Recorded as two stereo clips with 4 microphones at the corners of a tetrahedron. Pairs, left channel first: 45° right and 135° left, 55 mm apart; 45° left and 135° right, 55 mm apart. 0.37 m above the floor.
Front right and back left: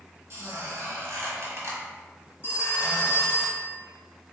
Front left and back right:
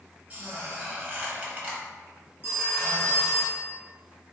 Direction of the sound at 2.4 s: Straight ahead.